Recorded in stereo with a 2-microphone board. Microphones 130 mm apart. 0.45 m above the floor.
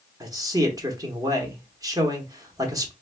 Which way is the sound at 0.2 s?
30° right (ahead or behind).